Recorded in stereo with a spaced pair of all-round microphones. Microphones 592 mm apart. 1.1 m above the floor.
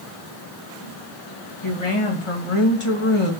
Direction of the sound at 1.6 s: 55° left (ahead or behind).